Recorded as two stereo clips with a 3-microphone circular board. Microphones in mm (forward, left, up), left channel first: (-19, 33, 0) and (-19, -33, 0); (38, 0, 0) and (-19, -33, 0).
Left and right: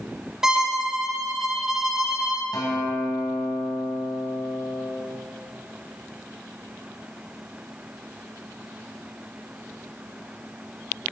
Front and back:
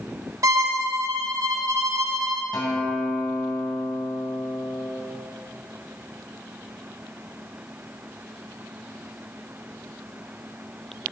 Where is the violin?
170° right, 0.9 m.